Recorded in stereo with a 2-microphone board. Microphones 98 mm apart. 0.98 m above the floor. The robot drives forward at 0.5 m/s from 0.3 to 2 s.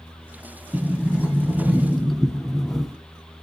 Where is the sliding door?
5° left (ahead or behind), 1.0 m; by 3.0 s centre (ahead or behind), 1.6 m.